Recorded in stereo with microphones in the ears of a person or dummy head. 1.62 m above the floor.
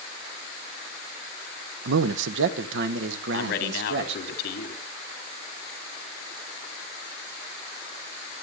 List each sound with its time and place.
1.9 s a man speaking: 65° right (ahead or behind), 0.9 m; by 4.3 s 70° right (ahead or behind), 2 m
3.3 s a man speaking: 55° left (ahead or behind), 3 m